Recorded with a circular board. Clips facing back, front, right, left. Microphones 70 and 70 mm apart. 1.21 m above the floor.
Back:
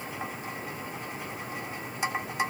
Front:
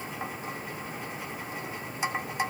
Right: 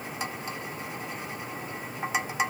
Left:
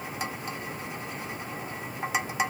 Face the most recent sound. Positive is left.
No sound to turn to.